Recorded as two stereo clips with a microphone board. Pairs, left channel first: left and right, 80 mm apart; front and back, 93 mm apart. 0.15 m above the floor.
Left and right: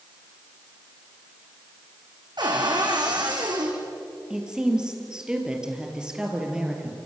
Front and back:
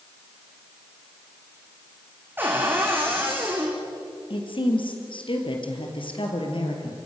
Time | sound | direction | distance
2.4 | a cupboard door | 110° right | 4.5 m
4.3 | a woman speaking | 10° right | 3.5 m